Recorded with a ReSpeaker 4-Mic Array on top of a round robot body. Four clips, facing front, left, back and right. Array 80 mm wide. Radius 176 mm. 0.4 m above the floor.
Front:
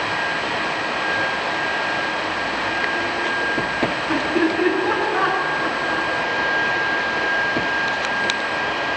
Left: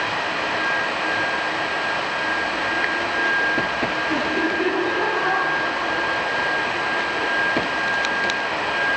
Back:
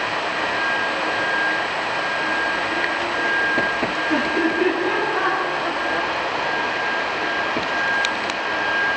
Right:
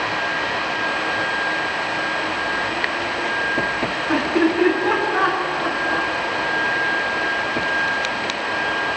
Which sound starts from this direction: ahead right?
Laughter, at 4.1 s.